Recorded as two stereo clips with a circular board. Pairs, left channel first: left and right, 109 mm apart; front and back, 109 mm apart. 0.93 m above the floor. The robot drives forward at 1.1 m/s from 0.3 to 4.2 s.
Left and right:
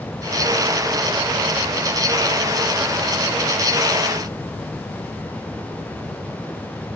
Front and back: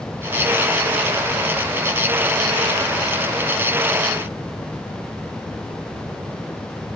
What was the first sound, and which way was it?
Only background noise.